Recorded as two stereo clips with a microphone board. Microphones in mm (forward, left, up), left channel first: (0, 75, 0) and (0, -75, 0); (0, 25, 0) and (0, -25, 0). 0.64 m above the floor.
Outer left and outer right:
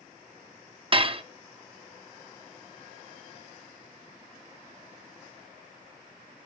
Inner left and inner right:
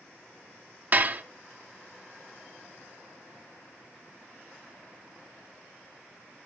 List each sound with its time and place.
0.9 s dishes clattering: 40° right (ahead or behind), 0.5 m